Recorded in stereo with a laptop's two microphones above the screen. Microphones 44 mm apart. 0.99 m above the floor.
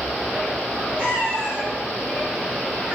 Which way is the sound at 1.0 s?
45° right (ahead or behind).